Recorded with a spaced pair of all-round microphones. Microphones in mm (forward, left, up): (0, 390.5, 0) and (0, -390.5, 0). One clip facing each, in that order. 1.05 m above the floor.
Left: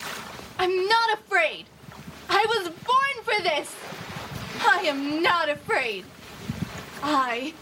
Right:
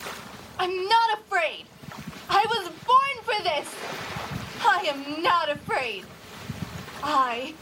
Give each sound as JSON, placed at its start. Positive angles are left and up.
{"t": 0.6, "sound": "a shout", "side_deg": 55, "distance_m": 1.0}